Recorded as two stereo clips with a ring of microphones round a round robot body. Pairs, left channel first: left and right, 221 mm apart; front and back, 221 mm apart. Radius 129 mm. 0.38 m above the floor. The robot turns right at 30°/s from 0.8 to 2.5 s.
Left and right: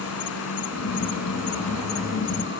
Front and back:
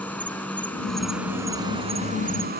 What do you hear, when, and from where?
0.0 s an insect: 85° left; by 2.6 s 135° left